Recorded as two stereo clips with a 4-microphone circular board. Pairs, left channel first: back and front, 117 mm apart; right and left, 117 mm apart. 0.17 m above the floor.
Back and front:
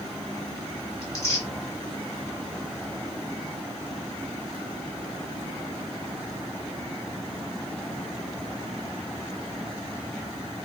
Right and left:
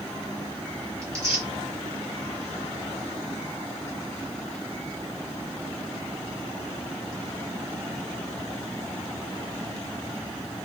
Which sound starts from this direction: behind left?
Tearing paper, at 1.0 s.